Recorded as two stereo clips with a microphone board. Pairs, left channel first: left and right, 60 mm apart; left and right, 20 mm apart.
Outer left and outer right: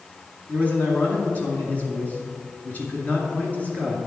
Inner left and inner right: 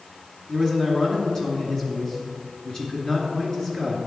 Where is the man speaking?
25° left (ahead or behind), 2 m.